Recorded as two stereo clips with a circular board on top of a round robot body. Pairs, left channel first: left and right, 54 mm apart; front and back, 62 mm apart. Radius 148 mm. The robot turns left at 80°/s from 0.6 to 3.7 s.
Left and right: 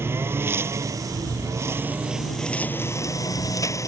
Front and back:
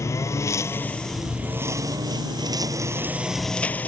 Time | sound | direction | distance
0.0 | a lawn mower | 45° right | ?